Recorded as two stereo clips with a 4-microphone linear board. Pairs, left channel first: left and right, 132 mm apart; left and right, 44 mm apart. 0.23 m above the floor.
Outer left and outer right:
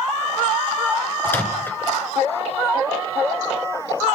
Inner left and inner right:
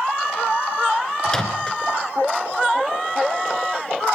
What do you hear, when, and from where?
1.2 s a microwave: 15° left (ahead or behind), 2.5 m